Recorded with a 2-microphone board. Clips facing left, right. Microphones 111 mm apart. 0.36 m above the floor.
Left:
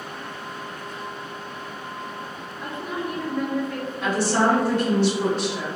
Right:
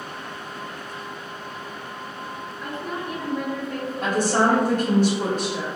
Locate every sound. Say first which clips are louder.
2.6 s a woman speaking: left 2 dB; 25° left (ahead or behind), 0.9 m; by 5.0 s 65° right (ahead or behind), 1.8 m
4.0 s a woman speaking: even; 45° right (ahead or behind), 1.1 m